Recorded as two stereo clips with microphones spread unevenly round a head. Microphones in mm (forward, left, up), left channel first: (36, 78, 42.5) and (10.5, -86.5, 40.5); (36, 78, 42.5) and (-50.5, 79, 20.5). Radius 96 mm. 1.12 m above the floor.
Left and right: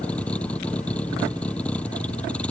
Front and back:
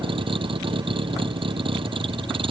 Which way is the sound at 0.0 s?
165° left.